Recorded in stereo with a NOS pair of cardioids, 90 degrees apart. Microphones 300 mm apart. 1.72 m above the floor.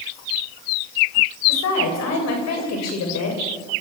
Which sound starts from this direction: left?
A woman speaking, at 1.5 s.